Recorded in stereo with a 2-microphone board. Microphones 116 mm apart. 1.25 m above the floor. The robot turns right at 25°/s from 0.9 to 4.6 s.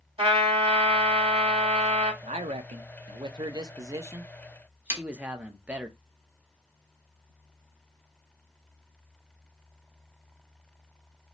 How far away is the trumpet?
About 1.8 m.